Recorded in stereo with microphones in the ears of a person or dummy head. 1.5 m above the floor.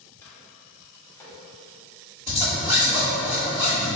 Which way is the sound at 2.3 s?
15° right (ahead or behind).